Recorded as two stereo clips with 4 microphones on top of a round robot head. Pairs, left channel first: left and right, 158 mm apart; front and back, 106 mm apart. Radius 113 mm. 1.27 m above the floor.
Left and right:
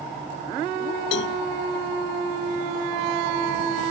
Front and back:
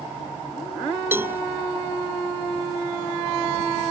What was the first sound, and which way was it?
A cowbell, 110° left.